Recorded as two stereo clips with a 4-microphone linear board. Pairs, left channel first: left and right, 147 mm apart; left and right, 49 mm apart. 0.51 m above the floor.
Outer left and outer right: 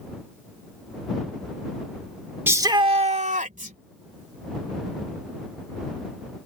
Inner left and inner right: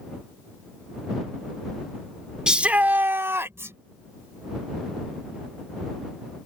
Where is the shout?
15° right (ahead or behind); by 3.8 s 70° right (ahead or behind).